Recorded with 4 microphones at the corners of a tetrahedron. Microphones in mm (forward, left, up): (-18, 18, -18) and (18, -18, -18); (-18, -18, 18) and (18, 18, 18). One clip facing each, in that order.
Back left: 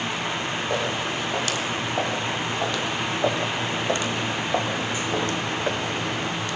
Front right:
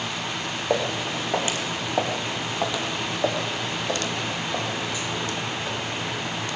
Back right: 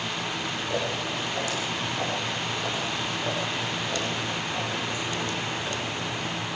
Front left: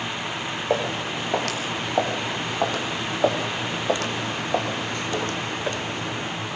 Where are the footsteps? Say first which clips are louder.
Front right 3 dB, front left 6 dB; 15° left, 6 m; by 6.4 s 105° left, 3.5 m.